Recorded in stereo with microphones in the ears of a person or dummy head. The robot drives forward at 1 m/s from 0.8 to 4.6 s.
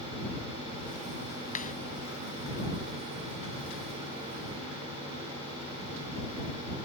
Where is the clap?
45° left (ahead or behind).